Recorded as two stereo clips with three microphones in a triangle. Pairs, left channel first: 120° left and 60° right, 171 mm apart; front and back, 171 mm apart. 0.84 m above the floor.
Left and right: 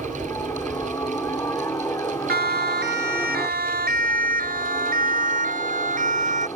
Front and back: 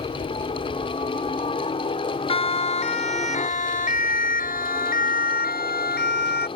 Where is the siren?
55° right; by 6.5 s 20° right.